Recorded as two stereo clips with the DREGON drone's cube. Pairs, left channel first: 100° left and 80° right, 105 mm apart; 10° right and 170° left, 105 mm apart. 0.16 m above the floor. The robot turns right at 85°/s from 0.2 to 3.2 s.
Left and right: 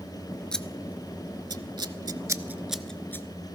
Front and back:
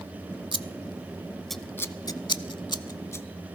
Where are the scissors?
175° left, 0.5 m; by 3.2 s 45° left, 0.5 m.